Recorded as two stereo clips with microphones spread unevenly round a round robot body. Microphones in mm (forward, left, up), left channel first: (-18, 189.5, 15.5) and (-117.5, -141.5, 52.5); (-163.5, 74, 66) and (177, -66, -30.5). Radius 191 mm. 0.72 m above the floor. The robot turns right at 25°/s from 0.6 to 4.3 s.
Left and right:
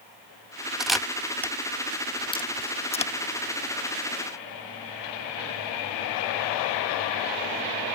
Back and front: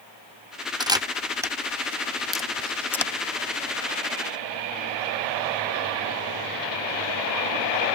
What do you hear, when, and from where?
0.8 s a camera shutter: 5° right; by 3.1 s 50° left